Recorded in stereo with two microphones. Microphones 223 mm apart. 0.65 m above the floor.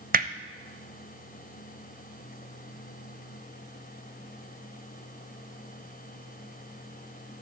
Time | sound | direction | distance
0.1 | hammering | 40° right (ahead or behind) | 0.7 m